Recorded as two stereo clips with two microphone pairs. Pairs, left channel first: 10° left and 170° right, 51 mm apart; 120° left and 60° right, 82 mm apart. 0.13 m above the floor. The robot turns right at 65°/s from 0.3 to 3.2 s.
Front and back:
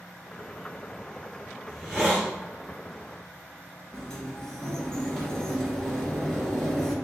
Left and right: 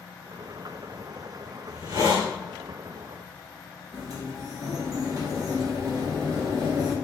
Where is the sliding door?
60° right, 1.3 m.